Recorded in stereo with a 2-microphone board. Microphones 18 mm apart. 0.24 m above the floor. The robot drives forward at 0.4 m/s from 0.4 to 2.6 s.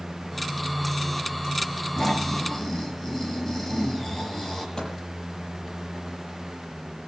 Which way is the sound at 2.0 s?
35° left (ahead or behind).